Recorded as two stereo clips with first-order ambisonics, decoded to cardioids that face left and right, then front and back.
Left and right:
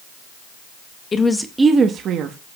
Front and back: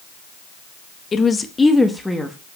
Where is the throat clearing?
I don't hear throat clearing.